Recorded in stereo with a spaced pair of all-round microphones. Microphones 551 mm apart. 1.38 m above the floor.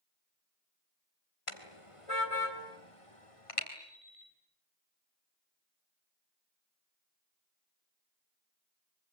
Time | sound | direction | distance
1.5 | a car horn | 65° left (ahead or behind) | 3 m
3.8 | an alarm clock | 75° right (ahead or behind) | 8.5 m